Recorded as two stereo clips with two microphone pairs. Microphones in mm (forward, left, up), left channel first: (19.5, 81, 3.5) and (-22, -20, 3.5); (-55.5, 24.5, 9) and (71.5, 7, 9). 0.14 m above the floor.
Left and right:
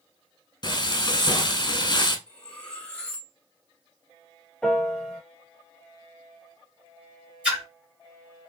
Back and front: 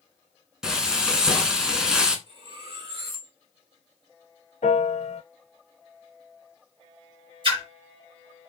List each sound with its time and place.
0.6 s frying: 75° left, 0.6 m
2.3 s cutlery clinking: 5° right, 1.0 m
4.6 s a piano: 150° left, 0.5 m
7.4 s a splash: 35° right, 2.5 m